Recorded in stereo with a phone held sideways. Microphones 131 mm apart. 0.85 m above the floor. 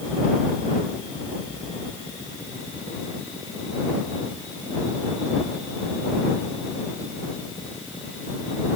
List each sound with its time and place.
Only background noise.